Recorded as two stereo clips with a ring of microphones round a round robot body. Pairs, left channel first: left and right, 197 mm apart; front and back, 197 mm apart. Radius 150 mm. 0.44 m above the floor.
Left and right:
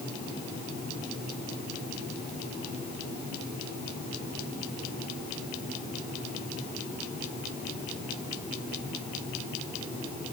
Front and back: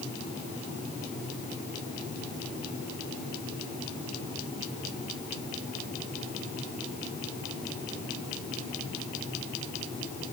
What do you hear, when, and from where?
Only background noise.